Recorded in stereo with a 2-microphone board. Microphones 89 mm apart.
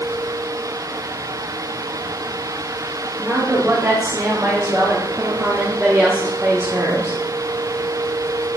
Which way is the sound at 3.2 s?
25° right (ahead or behind).